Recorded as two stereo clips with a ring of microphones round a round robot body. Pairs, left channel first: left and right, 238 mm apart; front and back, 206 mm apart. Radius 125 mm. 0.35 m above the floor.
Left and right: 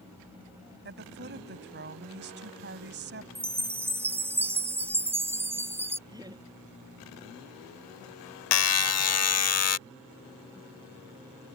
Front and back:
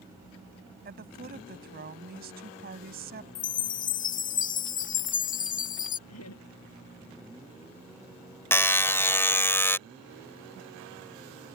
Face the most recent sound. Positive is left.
turn(degrees=80)